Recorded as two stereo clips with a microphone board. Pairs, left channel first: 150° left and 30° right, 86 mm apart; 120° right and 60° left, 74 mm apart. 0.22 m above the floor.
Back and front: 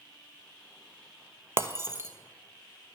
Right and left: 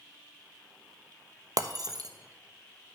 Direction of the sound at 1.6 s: 30° left.